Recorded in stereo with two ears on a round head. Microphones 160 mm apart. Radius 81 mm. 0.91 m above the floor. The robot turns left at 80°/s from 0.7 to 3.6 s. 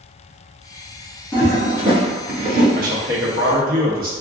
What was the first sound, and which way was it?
A toilet flushing, 15° left.